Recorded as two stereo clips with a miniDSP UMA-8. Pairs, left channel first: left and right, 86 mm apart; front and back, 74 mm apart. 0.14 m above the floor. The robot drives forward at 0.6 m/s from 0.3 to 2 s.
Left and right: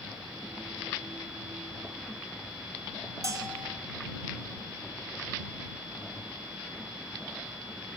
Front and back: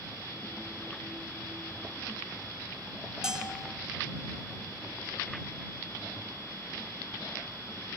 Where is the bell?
105° right, 0.6 m.